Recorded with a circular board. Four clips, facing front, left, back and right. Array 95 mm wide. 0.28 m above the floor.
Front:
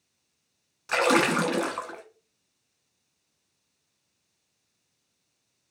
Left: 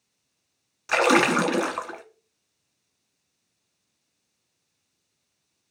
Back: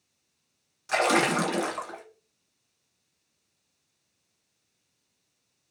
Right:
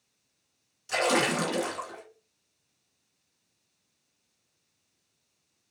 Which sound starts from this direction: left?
A splash, at 0.9 s.